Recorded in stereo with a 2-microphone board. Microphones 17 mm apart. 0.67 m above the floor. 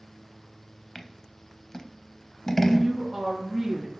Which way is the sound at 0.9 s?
25° left (ahead or behind).